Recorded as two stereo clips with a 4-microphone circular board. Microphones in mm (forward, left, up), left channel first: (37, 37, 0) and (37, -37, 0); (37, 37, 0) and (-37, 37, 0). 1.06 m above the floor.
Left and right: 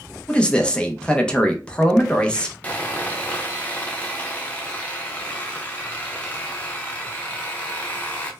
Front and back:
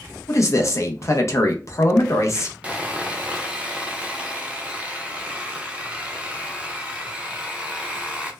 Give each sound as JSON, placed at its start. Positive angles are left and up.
{"t": 0.3, "sound": "a man speaking", "azimuth_deg": 20, "distance_m": 0.6}
{"t": 2.6, "sound": "sawing", "azimuth_deg": 125, "distance_m": 0.6}